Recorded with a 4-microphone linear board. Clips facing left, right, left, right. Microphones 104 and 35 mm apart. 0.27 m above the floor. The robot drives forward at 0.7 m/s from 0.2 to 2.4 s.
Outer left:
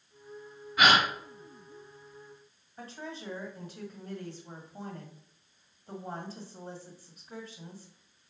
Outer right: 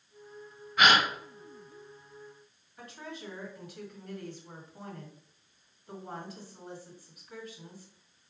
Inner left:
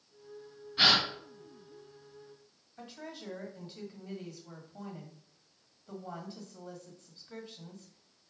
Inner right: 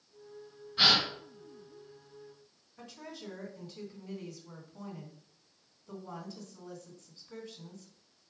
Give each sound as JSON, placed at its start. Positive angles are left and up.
{"t": 0.8, "sound": "a gasp", "side_deg": 5, "distance_m": 2.5}
{"t": 2.8, "sound": "a woman speaking", "side_deg": 35, "distance_m": 1.7}